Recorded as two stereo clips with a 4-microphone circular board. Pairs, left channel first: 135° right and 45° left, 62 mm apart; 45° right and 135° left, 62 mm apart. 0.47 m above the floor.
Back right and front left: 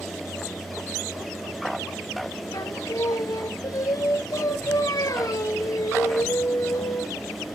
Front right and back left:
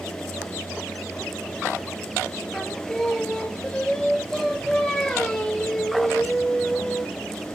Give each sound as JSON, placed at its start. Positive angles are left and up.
{"t": 2.5, "sound": "singing", "azimuth_deg": -125, "distance_m": 1.9}